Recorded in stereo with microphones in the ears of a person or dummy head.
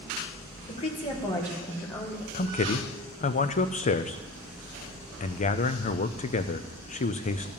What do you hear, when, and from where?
0.7 s a woman speaking: 30° left (ahead or behind), 1.8 m; by 2.2 s 5° left (ahead or behind), 2 m
2.3 s a man speaking: 35° left (ahead or behind), 0.6 m